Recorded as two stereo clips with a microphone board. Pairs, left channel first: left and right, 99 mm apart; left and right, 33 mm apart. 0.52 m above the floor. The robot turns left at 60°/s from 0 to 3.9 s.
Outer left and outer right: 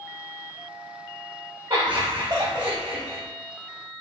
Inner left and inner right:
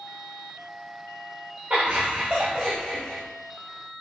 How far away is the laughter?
About 1.7 m.